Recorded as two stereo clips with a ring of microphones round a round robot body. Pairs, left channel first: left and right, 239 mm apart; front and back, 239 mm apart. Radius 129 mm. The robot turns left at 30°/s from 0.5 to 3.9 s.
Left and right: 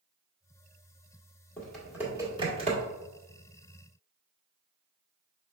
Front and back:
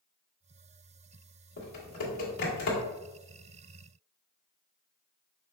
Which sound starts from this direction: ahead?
Typing on a keyboard, at 1.6 s.